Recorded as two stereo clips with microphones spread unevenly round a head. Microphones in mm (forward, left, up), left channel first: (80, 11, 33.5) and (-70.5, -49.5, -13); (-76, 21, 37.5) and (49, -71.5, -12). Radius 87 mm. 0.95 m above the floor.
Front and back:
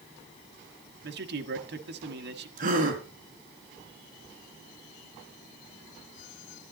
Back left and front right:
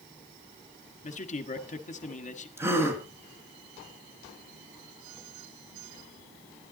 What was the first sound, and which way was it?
A man speaking, 170° right.